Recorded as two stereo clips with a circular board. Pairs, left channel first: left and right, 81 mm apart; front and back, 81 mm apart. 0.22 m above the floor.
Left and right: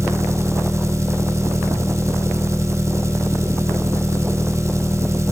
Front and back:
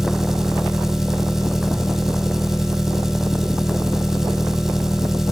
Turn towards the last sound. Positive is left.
turn(degrees=-100)